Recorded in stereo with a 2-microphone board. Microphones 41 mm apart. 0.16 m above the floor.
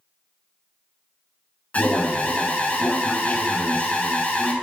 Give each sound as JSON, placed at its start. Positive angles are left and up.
{"t": 1.7, "sound": "an alarm", "side_deg": 40, "distance_m": 1.1}